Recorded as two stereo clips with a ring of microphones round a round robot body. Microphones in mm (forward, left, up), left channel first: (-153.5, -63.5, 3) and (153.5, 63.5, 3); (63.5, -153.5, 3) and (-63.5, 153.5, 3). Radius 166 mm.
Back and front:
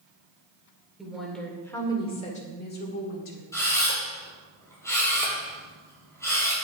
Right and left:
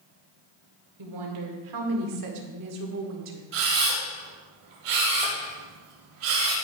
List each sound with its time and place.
1.0 s a woman speaking: 110° left, 2.5 m; by 3.4 s 160° left, 2 m
3.5 s a camera shutter: 120° left, 4 m